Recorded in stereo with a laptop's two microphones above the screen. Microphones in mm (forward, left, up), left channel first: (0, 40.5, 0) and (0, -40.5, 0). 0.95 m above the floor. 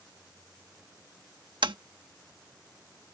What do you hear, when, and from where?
1.6 s tapping: 75° right (ahead or behind)